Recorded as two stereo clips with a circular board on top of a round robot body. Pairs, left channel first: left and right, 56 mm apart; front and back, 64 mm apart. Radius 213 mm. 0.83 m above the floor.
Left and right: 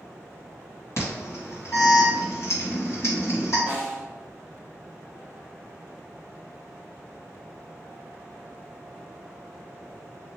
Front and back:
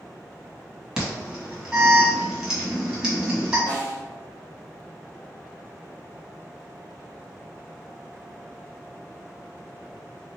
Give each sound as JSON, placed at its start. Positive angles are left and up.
{"t": 1.0, "sound": "an alarm", "azimuth_deg": 100, "distance_m": 2.0}
{"t": 3.7, "sound": "a snare drum", "azimuth_deg": 170, "distance_m": 1.4}